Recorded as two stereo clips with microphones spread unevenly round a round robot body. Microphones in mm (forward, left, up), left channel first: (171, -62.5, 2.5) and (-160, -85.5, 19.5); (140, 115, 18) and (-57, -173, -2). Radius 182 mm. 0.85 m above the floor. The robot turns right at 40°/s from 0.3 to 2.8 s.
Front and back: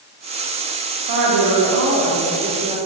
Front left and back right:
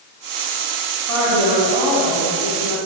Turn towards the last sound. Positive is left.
turn(degrees=-100)